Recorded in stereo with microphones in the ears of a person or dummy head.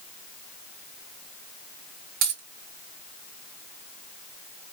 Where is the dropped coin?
60° right (ahead or behind), 3 m.